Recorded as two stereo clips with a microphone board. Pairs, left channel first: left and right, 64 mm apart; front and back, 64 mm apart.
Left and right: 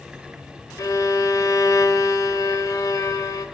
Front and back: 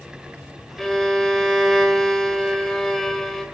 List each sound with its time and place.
0.8 s a violin: 80° left, 1.8 m